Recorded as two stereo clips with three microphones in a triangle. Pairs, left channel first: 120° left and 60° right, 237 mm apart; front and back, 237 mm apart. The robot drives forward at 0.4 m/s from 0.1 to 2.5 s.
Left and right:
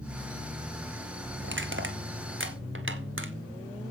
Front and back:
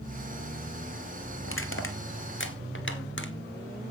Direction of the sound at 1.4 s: 25° right.